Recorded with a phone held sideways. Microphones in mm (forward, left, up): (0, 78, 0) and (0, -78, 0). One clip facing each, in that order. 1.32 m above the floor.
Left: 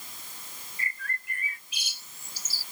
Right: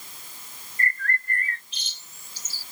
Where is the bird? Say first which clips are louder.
Right 9 dB; 10° left (ahead or behind).